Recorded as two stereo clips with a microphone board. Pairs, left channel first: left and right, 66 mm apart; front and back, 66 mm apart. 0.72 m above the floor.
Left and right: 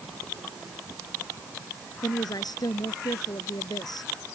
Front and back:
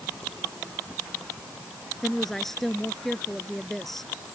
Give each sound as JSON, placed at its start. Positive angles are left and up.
{"t": 2.0, "sound": "a woman speaking", "azimuth_deg": 85}